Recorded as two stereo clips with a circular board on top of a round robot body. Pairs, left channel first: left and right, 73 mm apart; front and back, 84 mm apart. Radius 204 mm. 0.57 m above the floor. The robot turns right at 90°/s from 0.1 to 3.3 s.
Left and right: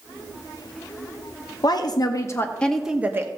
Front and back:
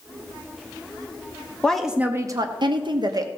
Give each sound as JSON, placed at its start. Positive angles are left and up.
{"t": 1.6, "sound": "a woman speaking", "azimuth_deg": 75, "distance_m": 1.0}